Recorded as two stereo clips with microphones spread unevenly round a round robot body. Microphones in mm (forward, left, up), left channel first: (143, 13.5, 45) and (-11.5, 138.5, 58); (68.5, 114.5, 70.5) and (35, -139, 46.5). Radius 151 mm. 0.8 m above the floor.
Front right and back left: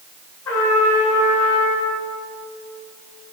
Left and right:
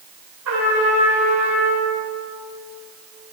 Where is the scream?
No scream in this recording.